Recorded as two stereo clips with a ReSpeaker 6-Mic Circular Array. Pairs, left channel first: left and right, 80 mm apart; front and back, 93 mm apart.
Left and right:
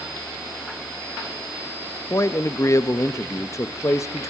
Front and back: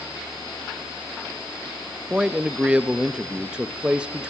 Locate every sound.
2.1 s a man speaking: 105° left, 0.9 m